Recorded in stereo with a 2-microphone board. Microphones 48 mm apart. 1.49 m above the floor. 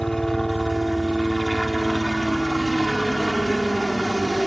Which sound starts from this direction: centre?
A helicopter, at 0.0 s.